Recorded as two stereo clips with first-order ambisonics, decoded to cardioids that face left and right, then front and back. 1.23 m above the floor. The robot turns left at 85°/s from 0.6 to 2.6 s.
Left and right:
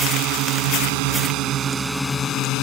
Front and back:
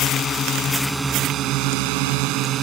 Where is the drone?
65° right; by 2.6 s 125° left.